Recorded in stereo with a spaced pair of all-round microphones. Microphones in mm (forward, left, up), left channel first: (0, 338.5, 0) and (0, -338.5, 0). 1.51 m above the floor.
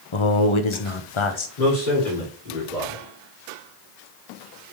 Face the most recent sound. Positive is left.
turn(degrees=80)